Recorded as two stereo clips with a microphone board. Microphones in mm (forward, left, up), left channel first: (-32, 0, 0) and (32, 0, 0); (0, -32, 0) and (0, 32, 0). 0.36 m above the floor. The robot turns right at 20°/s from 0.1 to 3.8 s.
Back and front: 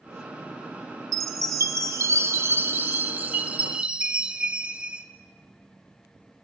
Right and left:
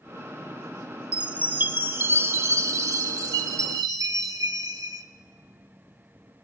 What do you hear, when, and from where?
1.1 s a chime: 20° left, 0.5 m; by 5.0 s 75° left, 0.5 m